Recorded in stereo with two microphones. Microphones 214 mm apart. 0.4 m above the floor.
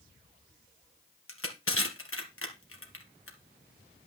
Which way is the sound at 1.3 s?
85° left.